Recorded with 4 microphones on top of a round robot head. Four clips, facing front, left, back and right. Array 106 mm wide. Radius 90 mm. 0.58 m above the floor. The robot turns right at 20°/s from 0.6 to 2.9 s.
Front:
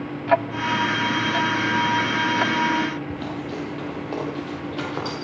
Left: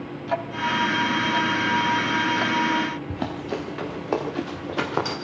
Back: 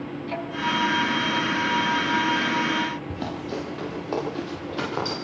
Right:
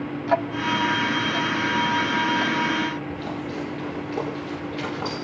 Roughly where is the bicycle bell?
No bicycle bell in this recording.